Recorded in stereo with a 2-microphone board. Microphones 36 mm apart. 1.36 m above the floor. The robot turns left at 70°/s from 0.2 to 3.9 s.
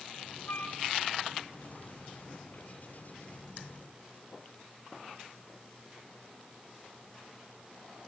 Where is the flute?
60° left (ahead or behind), 2 m; by 0.8 s 55° left (ahead or behind), 2 m.